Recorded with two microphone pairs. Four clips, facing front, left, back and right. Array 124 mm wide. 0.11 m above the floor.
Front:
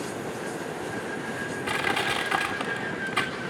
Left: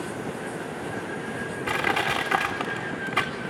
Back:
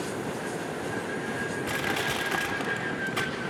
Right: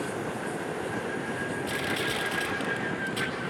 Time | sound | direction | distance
1.7 | crushing | 75° left | 3.5 m